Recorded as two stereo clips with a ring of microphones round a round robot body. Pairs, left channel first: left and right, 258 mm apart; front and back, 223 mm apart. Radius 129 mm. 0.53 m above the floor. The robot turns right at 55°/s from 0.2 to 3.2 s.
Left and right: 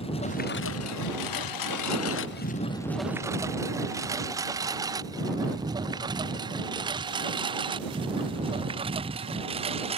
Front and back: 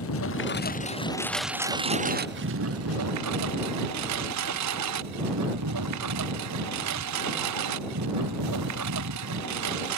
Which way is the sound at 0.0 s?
20° left.